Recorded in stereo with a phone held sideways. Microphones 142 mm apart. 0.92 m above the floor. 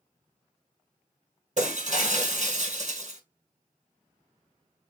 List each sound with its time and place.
1.6 s breaking glass: 60° right (ahead or behind), 1.6 m